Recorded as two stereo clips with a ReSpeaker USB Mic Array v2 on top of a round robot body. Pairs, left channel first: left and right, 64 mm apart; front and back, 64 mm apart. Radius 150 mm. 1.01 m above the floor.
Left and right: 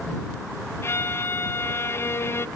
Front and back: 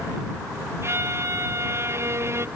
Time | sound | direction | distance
0.8 | a violin | 135° left | ?